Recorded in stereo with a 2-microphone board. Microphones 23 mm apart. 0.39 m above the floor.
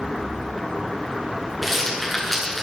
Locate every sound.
1.6 s a rattle: 10° left (ahead or behind), 6 m